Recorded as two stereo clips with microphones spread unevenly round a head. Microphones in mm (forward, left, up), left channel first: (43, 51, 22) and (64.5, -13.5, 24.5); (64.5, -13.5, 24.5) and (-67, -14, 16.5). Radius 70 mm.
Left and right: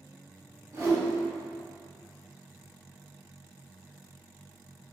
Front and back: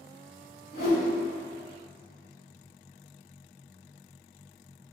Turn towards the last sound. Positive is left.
turn(degrees=-20)